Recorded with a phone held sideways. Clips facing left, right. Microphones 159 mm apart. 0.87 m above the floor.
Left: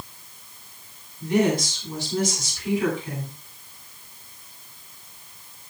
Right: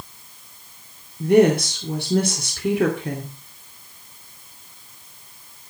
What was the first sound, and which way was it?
A woman speaking, 55° right (ahead or behind).